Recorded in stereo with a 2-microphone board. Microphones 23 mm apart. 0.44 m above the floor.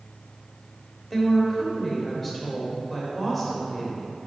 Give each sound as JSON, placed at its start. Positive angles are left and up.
{"t": 1.1, "sound": "a woman speaking", "side_deg": 5, "distance_m": 1.5}